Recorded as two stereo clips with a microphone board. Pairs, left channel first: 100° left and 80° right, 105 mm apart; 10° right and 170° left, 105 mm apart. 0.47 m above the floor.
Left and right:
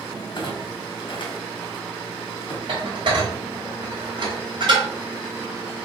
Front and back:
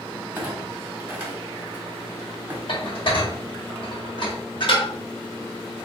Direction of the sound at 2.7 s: 45° right.